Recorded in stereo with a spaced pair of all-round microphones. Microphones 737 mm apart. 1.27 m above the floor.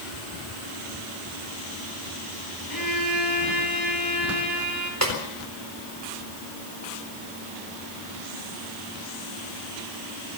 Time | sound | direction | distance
2.7 | a violin | 25° left (ahead or behind) | 5 m
5.0 | a snare drum | 20° right (ahead or behind) | 4 m